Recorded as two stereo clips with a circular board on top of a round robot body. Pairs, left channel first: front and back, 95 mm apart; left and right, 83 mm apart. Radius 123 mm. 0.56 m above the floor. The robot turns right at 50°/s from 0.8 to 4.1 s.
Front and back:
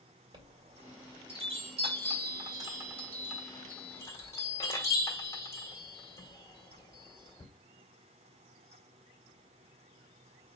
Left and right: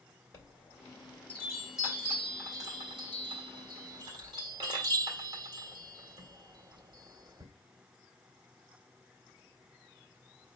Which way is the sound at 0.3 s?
135° left.